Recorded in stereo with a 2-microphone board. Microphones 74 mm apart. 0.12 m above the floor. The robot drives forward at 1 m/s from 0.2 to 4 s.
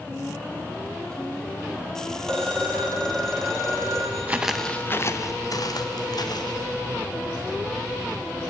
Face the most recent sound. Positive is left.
turn(degrees=75)  # may be behind; listen again after turning